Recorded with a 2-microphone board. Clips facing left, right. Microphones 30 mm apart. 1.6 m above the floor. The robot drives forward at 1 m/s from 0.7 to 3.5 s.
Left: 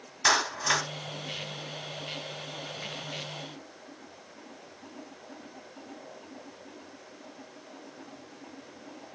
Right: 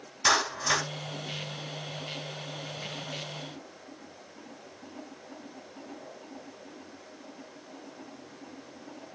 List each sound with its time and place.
0.2 s a clap: 15° left (ahead or behind), 4 m